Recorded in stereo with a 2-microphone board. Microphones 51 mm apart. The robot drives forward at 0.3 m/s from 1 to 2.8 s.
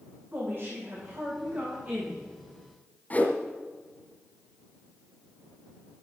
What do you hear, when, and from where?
0.3 s a woman speaking: 45° right (ahead or behind), 4.5 m
3.1 s a whoosh: 30° left (ahead or behind), 1.6 m